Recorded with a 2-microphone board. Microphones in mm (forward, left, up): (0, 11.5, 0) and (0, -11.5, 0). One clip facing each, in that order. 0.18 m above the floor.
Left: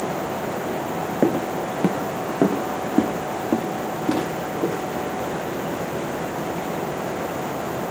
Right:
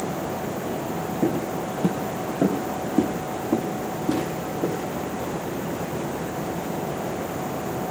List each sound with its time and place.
1.2 s footsteps: 80° left, 0.6 m; by 6.4 s 60° left (ahead or behind), 3.5 m